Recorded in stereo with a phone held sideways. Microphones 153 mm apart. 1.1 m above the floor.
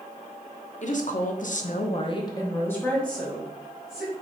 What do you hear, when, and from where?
0.8 s a woman speaking: 50° left (ahead or behind), 0.9 m; by 4.1 s 5° right (ahead or behind), 1.8 m